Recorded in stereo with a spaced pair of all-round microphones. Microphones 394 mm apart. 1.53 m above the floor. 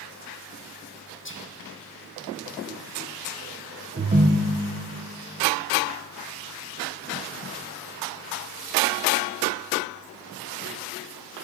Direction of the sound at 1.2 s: 30° left (ahead or behind).